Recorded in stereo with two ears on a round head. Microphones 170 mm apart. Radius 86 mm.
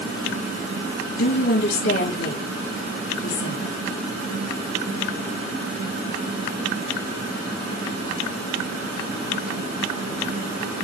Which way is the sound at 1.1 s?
70° left (ahead or behind).